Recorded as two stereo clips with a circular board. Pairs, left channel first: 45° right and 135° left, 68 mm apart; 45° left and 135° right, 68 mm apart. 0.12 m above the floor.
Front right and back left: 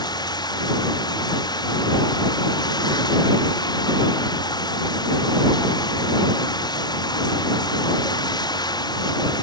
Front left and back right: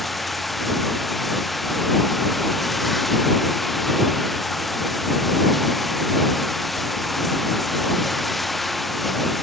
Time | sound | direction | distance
0.0 | running water | 45° right | ?